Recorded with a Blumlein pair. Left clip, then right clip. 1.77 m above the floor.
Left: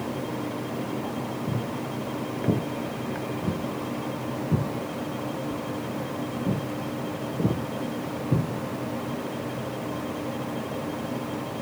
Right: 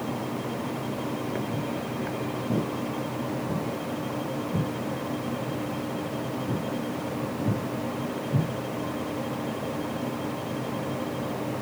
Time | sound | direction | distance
1.5 | footsteps | 45° left | 6 m